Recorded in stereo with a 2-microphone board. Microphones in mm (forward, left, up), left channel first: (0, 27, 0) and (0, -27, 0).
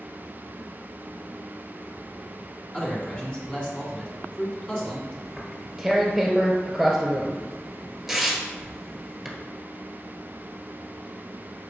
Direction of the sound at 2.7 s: 20° left (ahead or behind).